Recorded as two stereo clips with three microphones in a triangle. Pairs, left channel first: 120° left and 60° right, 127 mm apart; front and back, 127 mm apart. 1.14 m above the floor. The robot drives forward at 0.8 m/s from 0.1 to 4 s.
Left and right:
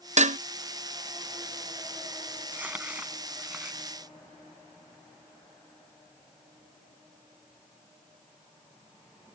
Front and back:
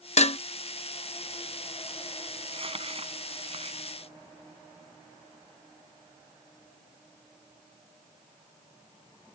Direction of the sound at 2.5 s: 135° right.